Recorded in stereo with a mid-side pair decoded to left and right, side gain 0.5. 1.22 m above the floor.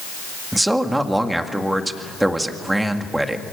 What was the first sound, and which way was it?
A man speaking, 10° right.